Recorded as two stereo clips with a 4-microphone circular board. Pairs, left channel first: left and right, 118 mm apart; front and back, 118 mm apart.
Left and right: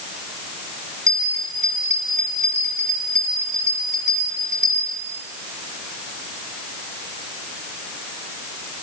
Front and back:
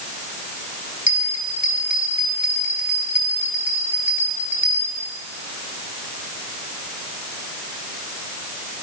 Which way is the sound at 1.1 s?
100° right.